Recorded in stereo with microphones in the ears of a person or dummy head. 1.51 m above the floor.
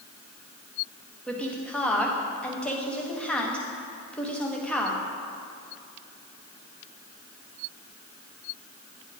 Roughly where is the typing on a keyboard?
No typing on a keyboard in this recording.